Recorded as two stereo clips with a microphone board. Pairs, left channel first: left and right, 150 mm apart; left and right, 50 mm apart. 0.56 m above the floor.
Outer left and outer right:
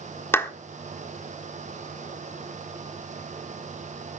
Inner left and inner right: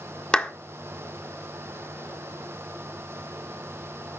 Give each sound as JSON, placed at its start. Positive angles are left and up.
{"t": 0.3, "sound": "a clap", "side_deg": 15, "distance_m": 1.3}